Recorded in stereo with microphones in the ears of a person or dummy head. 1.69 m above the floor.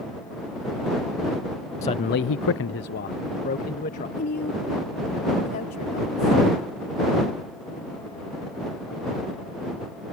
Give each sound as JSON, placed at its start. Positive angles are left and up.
{"t": 1.8, "sound": "a man speaking", "side_deg": 20}
{"t": 4.2, "sound": "a woman speaking", "side_deg": 50}